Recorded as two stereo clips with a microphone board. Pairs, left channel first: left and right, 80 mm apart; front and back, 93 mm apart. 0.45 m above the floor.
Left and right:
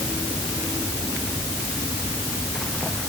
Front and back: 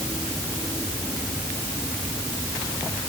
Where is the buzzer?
I don't hear a buzzer.